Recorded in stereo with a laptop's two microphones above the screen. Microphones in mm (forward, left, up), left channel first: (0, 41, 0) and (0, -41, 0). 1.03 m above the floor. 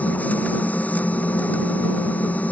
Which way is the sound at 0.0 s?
20° left (ahead or behind).